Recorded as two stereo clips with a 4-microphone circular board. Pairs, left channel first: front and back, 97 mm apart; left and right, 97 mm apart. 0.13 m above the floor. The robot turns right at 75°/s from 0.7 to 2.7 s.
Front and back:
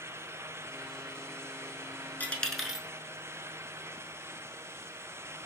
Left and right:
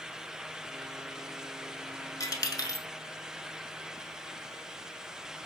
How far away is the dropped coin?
About 0.7 m.